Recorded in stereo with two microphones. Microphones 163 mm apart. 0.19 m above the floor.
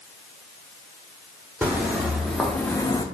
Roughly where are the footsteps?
Centre.